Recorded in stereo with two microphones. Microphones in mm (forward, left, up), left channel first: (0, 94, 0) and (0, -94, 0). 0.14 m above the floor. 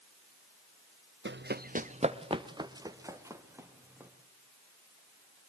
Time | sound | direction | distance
1.2 | running footsteps | 80° right | 0.8 m